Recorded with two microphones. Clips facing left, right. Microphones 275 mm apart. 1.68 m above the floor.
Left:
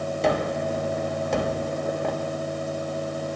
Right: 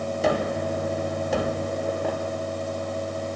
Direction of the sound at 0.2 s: Centre (ahead or behind).